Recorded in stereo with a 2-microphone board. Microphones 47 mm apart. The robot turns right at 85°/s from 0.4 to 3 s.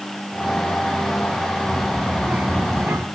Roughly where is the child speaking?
Behind left.